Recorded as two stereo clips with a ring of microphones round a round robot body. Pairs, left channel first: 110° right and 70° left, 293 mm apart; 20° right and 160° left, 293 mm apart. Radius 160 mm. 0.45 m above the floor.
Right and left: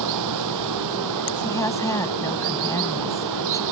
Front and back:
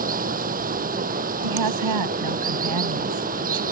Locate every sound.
0.0 s running water: 95° left
1.4 s a woman speaking: 165° left